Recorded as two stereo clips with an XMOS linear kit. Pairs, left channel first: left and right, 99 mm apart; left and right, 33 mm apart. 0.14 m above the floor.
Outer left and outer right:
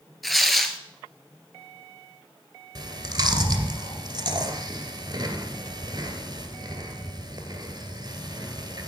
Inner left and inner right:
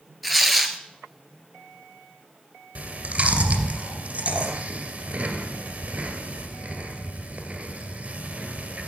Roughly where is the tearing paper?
Centre.